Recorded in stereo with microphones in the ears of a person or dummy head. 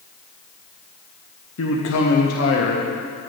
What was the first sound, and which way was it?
A man speaking, 85° left.